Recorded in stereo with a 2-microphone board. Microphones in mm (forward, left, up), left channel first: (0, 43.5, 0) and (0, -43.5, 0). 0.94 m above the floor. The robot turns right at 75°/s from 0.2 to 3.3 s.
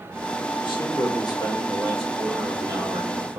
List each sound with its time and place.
0.6 s a man speaking: 70° left, 1.7 m; by 3.4 s 90° right, 1.7 m